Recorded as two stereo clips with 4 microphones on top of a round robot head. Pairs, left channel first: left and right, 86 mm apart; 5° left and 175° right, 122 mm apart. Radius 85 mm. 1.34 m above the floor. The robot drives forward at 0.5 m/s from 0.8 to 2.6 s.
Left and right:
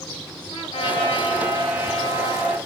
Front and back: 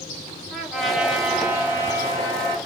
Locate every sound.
0.5 s a trumpet: 95° left, 1.6 m; by 2.6 s 120° left, 1.9 m